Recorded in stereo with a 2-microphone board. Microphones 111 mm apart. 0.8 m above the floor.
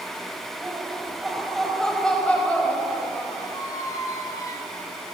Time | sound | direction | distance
0.6 | laughter | 10° right (ahead or behind) | 4 m
3.5 | a squeak | 30° left (ahead or behind) | 1.3 m